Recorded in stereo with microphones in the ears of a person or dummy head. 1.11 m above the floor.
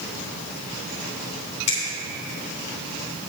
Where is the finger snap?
35° left (ahead or behind), 3 m.